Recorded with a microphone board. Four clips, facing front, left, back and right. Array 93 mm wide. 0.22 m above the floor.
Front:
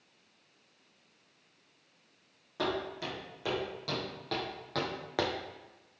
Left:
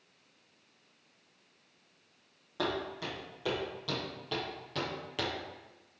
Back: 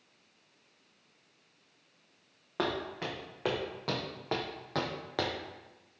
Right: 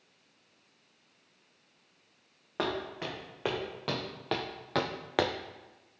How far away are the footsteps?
About 2.5 m.